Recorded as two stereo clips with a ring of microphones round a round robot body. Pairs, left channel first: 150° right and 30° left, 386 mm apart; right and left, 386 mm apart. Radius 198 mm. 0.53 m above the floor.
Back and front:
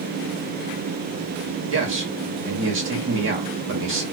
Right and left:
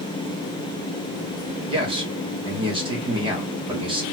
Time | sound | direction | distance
1.7 | a man speaking | 25° left | 1.4 m